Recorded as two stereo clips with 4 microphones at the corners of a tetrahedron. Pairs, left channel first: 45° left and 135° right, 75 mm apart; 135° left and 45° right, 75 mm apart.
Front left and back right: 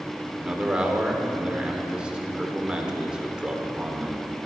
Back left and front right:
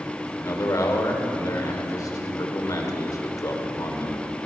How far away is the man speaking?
About 1.5 m.